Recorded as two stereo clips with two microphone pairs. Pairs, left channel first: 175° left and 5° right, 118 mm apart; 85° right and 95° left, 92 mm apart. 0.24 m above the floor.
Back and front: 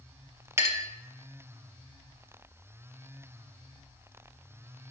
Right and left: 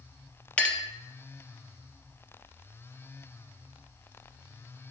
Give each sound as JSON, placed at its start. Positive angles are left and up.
{"t": 0.6, "sound": "a clink", "azimuth_deg": -30, "distance_m": 0.7}